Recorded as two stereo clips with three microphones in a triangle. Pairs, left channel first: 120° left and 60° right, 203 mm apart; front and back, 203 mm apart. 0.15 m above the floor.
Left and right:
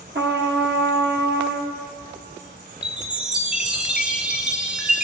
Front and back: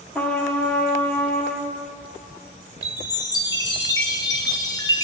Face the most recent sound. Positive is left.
turn(degrees=15)